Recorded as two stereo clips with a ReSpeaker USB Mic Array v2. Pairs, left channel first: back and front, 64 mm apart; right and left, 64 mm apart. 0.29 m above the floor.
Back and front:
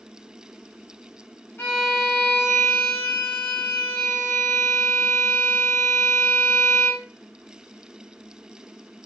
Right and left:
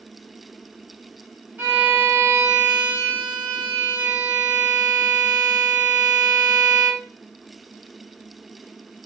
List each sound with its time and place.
1.6 s a violin: 145° left, 1.2 m